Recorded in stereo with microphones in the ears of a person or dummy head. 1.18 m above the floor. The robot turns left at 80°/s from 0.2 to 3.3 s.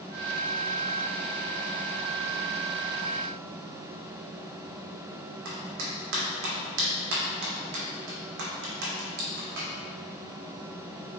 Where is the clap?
65° right (ahead or behind), 2.5 m.